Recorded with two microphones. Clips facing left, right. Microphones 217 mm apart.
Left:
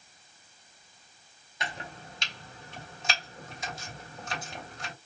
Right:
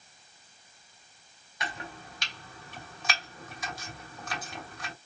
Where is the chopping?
25° left (ahead or behind), 1.2 m.